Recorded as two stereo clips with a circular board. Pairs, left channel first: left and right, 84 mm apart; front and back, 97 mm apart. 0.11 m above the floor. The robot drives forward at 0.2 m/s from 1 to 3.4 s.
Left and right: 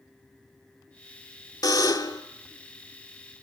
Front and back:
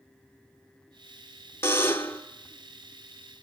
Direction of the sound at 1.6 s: 60° left.